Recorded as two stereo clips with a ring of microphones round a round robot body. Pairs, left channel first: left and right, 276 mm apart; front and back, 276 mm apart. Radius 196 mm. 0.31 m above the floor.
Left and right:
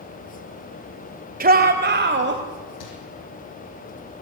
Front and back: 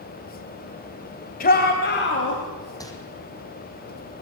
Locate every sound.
1.4 s a shout: 45° right, 1.7 m; by 2.4 s 50° right, 2.5 m
2.8 s crumpling: 80° left, 4.5 m